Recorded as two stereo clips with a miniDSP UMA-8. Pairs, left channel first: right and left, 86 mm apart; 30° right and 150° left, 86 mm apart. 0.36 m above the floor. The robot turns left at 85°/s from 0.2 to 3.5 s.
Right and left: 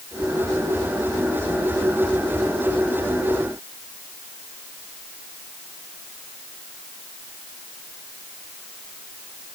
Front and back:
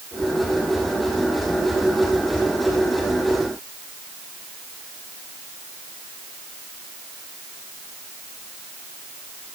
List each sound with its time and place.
Only background noise.